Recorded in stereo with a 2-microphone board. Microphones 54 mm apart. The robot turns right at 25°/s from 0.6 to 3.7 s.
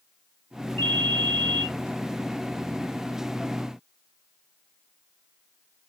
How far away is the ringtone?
About 1.2 m.